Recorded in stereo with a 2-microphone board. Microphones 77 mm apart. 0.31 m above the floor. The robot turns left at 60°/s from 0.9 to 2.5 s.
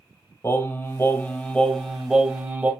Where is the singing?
55° left, 1.1 m; by 2.7 s 40° right, 1.1 m.